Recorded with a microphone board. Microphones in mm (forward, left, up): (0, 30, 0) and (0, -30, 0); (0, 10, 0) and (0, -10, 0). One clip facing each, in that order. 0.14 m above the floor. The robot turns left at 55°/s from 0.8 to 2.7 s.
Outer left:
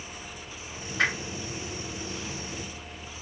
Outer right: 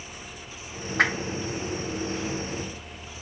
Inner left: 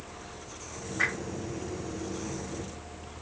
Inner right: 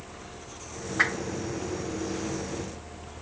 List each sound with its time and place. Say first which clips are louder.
1.0 s a whoosh: outer right 3 dB, inner right 4 dB; 55° right (ahead or behind), 2.0 m; by 1.3 s 35° right (ahead or behind), 2.0 m